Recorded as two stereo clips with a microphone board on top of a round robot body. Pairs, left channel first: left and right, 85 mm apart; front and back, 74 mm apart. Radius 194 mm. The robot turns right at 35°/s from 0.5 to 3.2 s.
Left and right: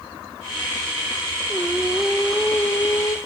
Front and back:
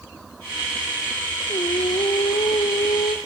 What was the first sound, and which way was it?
Singing, 25° right.